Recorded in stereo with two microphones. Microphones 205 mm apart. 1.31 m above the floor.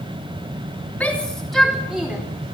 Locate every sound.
1.0 s a shout: 5° left (ahead or behind), 3 m; by 2.2 s 5° right (ahead or behind), 4.5 m